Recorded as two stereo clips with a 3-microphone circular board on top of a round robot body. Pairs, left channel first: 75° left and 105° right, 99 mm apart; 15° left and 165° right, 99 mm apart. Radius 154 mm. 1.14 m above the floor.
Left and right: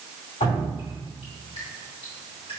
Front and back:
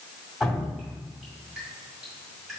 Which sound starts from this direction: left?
Dripping, at 0.4 s.